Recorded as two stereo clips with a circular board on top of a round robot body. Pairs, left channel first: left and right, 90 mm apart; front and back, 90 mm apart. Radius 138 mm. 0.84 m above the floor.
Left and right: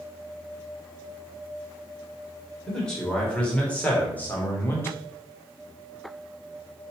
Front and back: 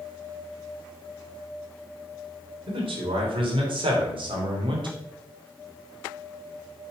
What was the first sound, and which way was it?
A man speaking, 175° left.